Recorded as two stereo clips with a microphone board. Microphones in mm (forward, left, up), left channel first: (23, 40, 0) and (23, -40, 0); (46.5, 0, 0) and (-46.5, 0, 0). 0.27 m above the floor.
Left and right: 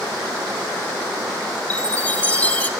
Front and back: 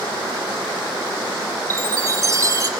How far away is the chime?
About 1.1 m.